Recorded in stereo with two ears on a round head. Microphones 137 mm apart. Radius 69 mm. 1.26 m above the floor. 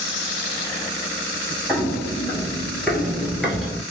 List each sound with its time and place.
1.7 s footsteps: centre (ahead or behind), 1.5 m